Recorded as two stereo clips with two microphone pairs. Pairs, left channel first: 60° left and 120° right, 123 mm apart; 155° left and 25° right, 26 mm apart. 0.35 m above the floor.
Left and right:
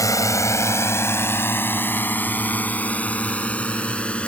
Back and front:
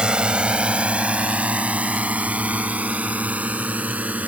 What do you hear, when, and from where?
0.0 s a drone: 10° left; by 4.3 s 20° right